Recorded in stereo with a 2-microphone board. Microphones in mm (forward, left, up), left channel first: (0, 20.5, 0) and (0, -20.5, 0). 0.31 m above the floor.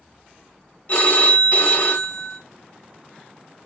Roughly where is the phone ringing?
Left.